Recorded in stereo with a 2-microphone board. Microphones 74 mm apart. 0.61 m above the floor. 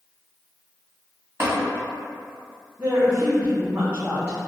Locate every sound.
1.4 s tapping: 30° right (ahead or behind), 1.7 m
2.8 s a woman speaking: 25° right (ahead or behind), 1.1 m